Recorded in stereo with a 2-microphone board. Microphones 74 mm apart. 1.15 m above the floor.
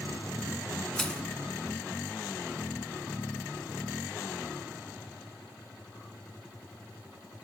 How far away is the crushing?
About 1.8 m.